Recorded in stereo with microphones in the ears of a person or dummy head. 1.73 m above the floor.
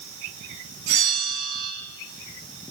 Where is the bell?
80° right, 2.5 m.